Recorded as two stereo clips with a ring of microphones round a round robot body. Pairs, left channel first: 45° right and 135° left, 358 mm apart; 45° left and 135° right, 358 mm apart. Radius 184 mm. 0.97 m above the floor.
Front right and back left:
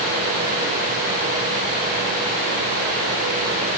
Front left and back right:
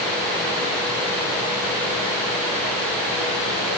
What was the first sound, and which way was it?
Only background noise.